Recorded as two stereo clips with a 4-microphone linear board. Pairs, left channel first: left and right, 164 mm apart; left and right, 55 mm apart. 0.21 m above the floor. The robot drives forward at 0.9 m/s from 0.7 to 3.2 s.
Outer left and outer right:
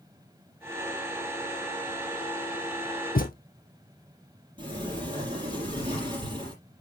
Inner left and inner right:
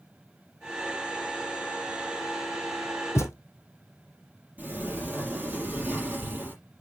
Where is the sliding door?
30° right (ahead or behind), 5.5 m.